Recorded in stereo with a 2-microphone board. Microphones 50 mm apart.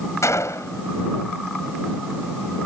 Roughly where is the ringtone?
No ringtone in this recording.